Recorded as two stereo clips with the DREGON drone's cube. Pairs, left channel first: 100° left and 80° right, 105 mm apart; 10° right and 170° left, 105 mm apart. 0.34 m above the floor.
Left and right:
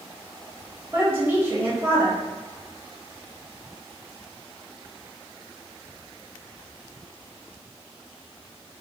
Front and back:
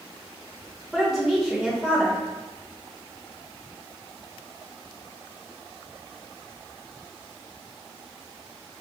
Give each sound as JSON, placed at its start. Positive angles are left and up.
{"t": 0.9, "sound": "a woman speaking", "azimuth_deg": -105, "distance_m": 1.1}